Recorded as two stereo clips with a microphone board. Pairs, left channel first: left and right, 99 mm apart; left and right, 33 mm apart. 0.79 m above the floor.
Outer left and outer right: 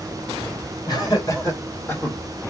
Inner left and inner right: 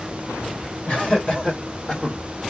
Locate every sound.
0.9 s laughter: 45° left (ahead or behind), 2.0 m; by 2.2 s 20° left (ahead or behind), 1.6 m